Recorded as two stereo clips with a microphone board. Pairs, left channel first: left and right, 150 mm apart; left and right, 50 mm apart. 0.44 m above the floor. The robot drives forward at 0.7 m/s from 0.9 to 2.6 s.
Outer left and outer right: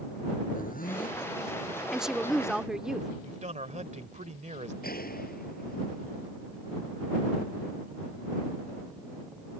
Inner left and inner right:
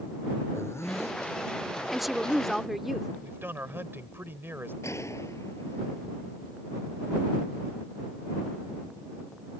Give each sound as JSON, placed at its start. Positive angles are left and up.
{"t": 0.5, "sound": "a zipper", "side_deg": 70}
{"t": 1.9, "sound": "a woman speaking", "side_deg": -5}
{"t": 3.2, "sound": "a man speaking", "side_deg": -50}
{"t": 4.8, "sound": "a gunshot", "side_deg": 85}